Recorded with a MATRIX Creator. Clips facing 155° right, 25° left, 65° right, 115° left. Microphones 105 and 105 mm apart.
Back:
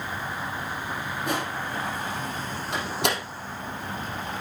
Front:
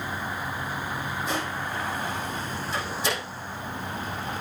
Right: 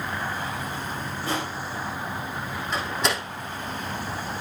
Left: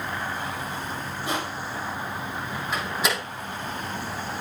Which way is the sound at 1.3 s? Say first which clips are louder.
Back 3 dB, even; 175° right.